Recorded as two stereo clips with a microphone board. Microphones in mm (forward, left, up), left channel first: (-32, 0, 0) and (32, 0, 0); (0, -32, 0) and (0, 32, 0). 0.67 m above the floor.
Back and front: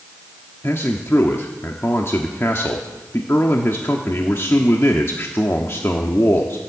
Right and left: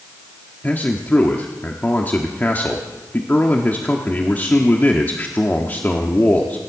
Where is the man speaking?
145° right, 1.2 m.